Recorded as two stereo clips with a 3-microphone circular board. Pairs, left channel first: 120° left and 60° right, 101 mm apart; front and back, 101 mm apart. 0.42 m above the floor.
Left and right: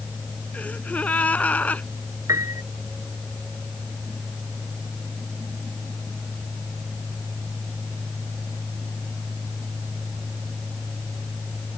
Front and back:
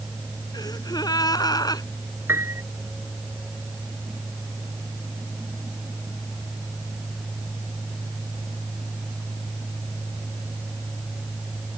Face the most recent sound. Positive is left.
turn(degrees=-115)